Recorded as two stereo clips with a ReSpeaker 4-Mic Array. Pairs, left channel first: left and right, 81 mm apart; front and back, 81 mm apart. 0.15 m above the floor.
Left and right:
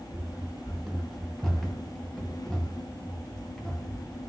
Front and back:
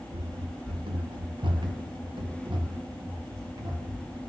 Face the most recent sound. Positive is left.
turn(degrees=170)